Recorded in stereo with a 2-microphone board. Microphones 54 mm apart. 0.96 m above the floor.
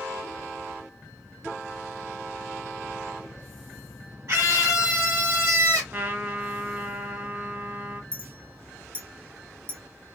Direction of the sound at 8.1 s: 35° right (ahead or behind).